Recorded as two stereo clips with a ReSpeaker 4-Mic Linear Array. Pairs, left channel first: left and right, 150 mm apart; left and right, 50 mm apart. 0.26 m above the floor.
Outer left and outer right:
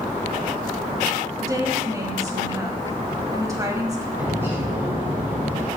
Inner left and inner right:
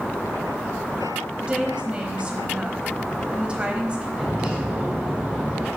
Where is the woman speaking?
25° right (ahead or behind), 1.1 m.